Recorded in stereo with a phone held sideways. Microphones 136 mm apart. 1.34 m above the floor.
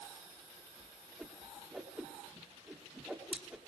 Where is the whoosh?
10° right (ahead or behind), 2.5 m.